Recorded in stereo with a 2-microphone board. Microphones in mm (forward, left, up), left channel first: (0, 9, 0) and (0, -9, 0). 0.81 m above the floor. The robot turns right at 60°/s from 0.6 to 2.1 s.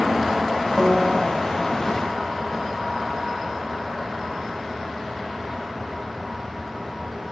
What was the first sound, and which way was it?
A piano, 35° right (ahead or behind).